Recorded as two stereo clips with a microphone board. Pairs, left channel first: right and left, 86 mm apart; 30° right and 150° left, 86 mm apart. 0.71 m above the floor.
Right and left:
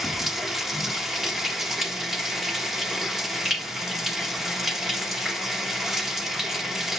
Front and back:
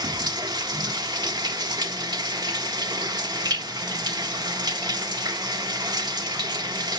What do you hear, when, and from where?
0.0 s running water: 175° left, 1.3 m